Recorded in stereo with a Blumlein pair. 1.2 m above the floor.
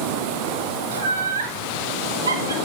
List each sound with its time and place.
0.9 s laughter: 65° right, 6 m; by 2.5 s 75° right, 5 m